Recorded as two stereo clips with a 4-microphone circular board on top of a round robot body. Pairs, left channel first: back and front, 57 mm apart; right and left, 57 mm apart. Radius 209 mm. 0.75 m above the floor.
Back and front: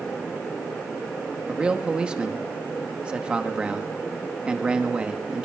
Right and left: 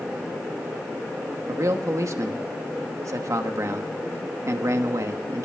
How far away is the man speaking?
About 1.4 m.